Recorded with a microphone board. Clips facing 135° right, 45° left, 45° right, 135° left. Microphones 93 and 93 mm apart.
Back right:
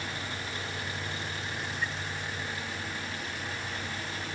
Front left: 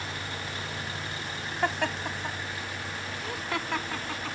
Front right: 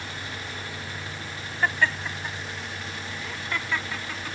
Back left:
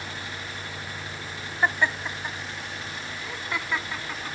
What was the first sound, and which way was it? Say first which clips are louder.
Laughter: front left 11 dB, even; 60° left.